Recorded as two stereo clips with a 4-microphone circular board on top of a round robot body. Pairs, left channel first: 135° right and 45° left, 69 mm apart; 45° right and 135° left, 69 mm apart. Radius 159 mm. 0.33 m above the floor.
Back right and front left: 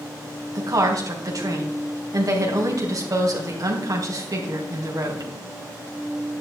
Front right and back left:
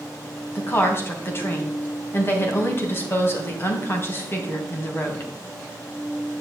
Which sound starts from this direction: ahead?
A woman speaking, at 0.6 s.